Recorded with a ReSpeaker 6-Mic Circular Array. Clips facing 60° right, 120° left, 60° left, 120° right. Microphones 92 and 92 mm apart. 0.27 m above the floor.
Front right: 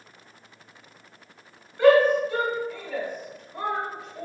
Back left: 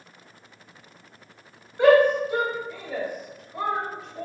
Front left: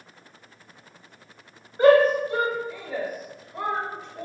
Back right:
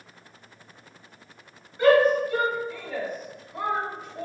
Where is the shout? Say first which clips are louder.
Even, front left 2 dB; 65° left, 1.4 m; by 4.2 s 140° right, 1.1 m.